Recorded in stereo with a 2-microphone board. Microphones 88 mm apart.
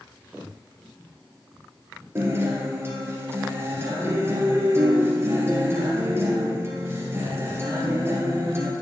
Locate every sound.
2.1 s a guitar: 30° right (ahead or behind), 2.5 m